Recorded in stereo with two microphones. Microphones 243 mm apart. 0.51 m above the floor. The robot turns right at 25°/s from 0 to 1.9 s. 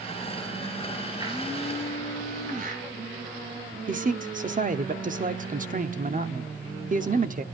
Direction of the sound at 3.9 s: 35° right (ahead or behind).